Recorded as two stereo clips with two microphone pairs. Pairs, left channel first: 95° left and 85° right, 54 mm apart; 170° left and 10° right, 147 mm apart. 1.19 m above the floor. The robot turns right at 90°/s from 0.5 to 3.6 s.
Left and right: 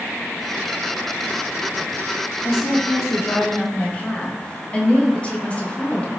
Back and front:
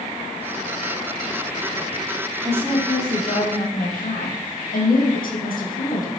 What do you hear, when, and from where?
2.4 s a woman speaking: 55° left, 0.7 m; by 6.1 s 160° left, 0.7 m